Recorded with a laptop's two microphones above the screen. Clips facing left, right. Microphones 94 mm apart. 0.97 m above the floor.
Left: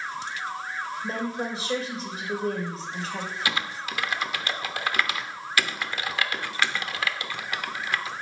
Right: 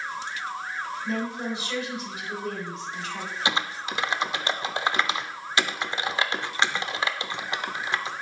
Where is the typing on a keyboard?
25° right (ahead or behind), 0.6 m.